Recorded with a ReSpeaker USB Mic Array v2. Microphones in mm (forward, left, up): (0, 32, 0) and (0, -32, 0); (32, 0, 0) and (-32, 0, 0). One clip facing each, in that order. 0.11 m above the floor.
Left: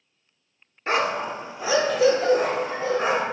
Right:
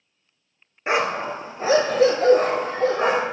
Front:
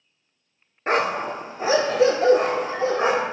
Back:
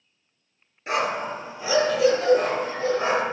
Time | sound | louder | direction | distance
0.9 | a dog barking | right 1 dB, front 3 dB | 25° right | 0.6 m